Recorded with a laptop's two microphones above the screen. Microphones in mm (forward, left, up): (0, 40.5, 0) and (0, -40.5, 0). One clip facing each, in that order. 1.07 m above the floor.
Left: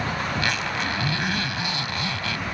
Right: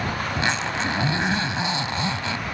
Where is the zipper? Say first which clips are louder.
Right 1 dB; 25° right (ahead or behind).